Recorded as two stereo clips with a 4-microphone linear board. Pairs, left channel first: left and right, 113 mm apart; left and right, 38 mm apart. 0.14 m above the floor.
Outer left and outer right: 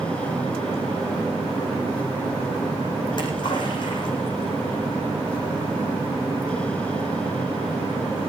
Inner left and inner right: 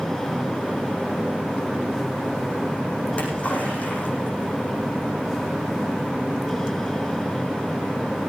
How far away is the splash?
About 8.5 m.